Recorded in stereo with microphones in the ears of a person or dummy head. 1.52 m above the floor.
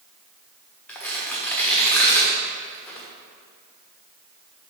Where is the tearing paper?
10° left (ahead or behind), 1.3 m.